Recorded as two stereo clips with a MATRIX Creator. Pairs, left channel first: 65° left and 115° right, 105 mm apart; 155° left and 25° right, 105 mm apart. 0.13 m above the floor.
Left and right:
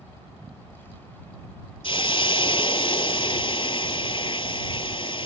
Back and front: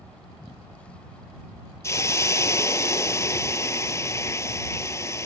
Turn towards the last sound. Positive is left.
turn(degrees=100)